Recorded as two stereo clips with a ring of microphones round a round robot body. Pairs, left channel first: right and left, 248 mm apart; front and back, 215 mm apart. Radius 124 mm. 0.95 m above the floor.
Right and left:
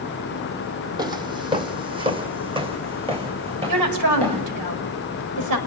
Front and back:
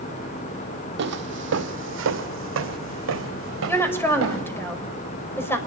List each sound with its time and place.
1.0 s footsteps: 160° left, 1.5 m
3.7 s a woman speaking: 80° left, 5.5 m